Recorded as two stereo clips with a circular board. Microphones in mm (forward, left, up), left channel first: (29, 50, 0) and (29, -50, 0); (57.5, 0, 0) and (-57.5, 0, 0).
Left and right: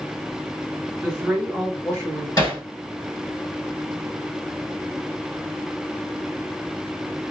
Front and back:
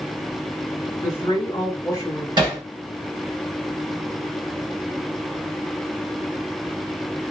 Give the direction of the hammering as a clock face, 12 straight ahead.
7 o'clock.